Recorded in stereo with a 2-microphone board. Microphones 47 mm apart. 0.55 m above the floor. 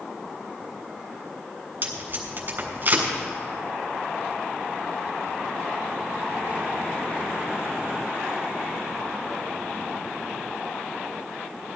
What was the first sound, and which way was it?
Tape being pulled, 40° right (ahead or behind).